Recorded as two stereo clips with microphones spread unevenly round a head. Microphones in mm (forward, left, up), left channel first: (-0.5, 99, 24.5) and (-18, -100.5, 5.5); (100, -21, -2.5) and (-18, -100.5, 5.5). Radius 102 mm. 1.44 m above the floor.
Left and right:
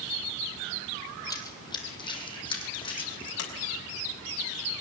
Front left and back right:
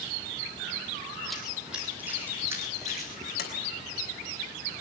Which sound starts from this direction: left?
A sliding door, at 3.4 s.